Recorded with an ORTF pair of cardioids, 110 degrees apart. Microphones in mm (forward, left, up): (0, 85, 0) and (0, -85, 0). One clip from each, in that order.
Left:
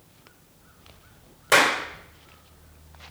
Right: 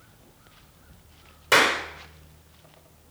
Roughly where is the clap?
Ahead.